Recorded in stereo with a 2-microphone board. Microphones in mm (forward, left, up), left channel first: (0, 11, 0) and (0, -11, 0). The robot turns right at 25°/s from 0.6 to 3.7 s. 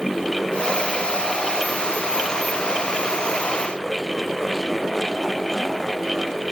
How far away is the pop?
I don't hear a pop.